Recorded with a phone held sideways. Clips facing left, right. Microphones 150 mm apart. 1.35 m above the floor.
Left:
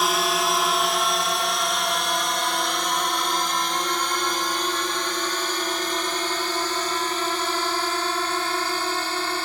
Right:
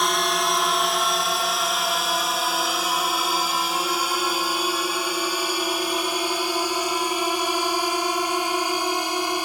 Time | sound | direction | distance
0.0 | a drone | 5° left (ahead or behind) | ?